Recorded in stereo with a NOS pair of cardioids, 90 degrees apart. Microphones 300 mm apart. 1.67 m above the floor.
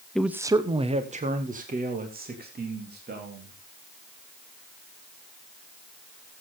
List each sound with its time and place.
0.1 s a man speaking: straight ahead, 0.7 m; by 3.5 s 35° right, 4 m